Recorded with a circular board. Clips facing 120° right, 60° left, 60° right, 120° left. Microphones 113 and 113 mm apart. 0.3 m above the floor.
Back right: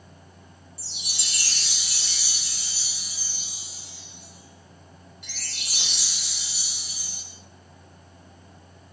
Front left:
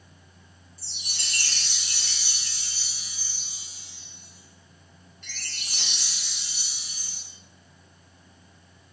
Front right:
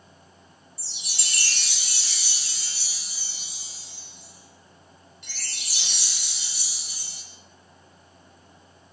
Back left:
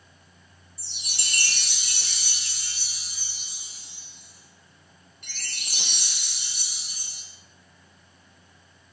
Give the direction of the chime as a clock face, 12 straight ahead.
7 o'clock.